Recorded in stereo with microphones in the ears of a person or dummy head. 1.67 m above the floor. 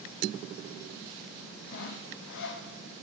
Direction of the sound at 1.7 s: 65° left (ahead or behind).